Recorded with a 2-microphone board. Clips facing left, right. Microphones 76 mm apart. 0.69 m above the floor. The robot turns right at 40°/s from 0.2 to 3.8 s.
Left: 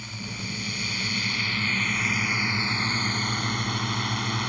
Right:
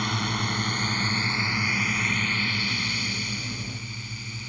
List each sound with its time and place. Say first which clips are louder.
0.0 s a drone: right 9 dB; 75° right; by 4.5 s 70° left